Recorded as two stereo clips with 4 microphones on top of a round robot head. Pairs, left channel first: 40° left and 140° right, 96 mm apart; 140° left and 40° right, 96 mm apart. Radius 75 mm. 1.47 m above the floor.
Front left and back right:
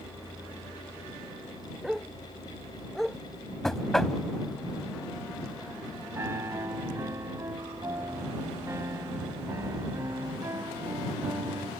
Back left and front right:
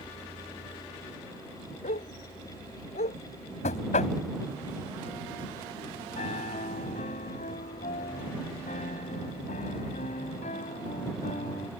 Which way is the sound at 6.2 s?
155° left.